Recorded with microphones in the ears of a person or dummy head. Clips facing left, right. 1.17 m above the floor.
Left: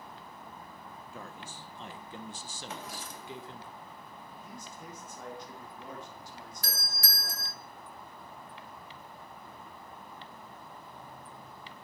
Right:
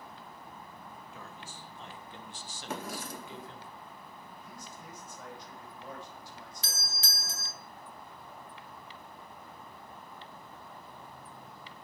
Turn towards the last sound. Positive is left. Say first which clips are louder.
# left 2 dB
turn(degrees=-20)  # may be behind; listen again after turning